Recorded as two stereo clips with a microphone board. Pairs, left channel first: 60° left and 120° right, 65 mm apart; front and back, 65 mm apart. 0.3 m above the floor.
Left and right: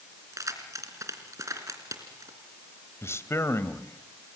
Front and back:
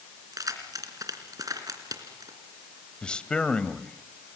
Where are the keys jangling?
155° right, 3 m.